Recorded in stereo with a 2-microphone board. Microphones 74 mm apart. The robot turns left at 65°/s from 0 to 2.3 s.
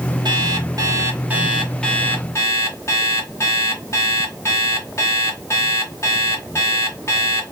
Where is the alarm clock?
90° right, 1.6 m; by 7.4 s 135° left, 1.6 m.